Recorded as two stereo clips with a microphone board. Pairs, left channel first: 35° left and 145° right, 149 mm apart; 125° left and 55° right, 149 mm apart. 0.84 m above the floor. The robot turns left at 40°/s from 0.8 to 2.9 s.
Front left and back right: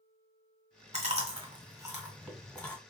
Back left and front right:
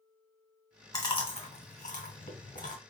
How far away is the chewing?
About 1.7 m.